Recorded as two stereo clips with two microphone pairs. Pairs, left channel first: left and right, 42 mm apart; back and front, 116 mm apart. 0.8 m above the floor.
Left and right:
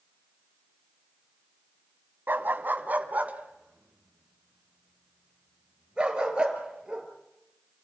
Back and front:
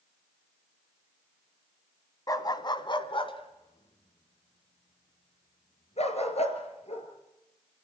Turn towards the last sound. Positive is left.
turn(degrees=-160)